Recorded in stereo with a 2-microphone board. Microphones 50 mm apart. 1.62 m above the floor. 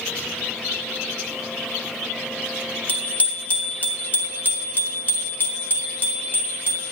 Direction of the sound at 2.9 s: 30° left (ahead or behind).